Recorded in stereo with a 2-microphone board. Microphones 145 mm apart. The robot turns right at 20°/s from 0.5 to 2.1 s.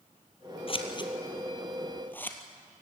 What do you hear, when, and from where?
0.7 s scissors: 40° left (ahead or behind), 1.8 m; by 2.4 s 15° left (ahead or behind), 1.8 m